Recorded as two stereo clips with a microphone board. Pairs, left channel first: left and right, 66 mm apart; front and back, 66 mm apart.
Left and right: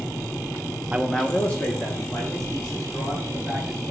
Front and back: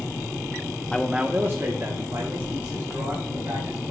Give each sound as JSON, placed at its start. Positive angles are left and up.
{"t": 0.9, "sound": "a man speaking", "azimuth_deg": -50, "distance_m": 0.5}